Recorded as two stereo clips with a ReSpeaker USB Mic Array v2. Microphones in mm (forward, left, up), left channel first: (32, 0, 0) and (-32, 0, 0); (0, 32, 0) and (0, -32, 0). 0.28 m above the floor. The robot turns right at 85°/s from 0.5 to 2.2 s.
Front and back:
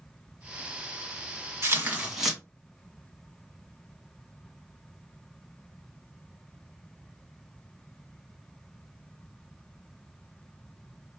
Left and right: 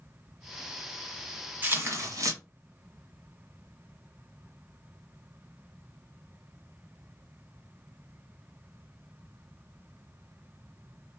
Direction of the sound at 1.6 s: 145° right.